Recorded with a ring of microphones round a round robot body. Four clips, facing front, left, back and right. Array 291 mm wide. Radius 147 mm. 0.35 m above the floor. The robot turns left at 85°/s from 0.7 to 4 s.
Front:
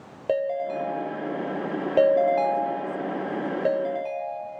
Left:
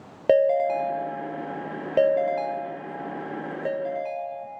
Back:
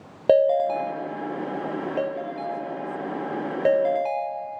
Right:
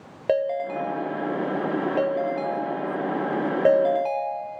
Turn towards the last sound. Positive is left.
turn(degrees=-135)